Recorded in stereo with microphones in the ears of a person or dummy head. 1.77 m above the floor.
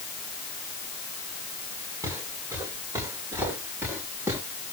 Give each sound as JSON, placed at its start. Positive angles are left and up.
{"t": 2.0, "sound": "footsteps", "side_deg": -15, "distance_m": 9.0}